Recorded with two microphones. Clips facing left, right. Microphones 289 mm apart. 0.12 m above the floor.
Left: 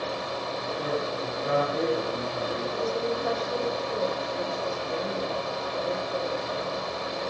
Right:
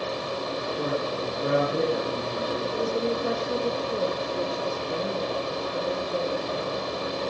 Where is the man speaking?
55° right (ahead or behind), 7.5 m.